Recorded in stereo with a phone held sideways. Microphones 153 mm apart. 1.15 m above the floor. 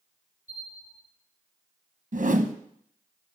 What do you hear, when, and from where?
0.5 s a bell: 55° left (ahead or behind), 5.5 m
2.1 s a whoosh: 55° right (ahead or behind), 0.9 m